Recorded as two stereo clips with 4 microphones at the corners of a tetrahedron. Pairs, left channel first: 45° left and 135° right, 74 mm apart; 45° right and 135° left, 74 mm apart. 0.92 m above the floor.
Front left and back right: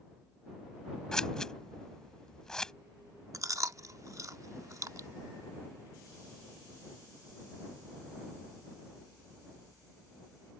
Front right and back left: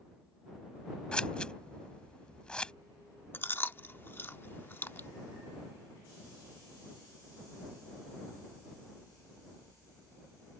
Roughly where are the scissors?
Ahead.